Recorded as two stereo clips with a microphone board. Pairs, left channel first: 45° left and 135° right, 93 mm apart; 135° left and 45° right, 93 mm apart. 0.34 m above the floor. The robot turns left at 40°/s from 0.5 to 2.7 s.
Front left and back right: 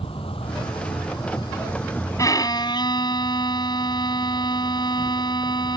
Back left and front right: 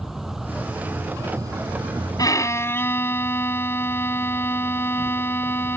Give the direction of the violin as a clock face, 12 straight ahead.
9 o'clock.